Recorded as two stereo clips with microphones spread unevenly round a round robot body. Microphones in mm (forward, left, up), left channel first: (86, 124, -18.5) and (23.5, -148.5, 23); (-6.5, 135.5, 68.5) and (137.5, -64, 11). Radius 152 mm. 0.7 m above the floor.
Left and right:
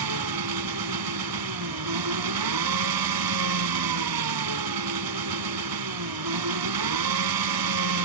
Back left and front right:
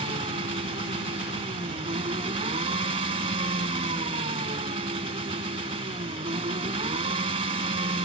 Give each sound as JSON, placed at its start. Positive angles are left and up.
{"t": 0.0, "sound": "an engine running", "azimuth_deg": -125}